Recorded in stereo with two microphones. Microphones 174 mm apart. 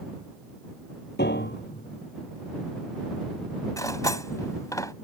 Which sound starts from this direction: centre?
Cutlery clinking, at 3.8 s.